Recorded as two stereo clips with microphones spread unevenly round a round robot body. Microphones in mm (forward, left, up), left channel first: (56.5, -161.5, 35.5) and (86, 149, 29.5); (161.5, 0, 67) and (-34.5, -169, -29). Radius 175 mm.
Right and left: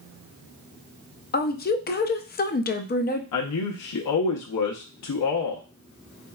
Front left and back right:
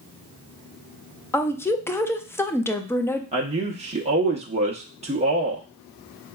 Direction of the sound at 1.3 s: 70° right.